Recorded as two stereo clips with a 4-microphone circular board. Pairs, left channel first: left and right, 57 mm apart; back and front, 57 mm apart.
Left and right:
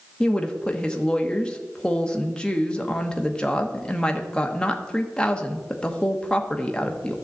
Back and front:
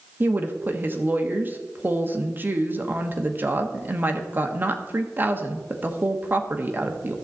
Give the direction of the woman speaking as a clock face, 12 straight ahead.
11 o'clock.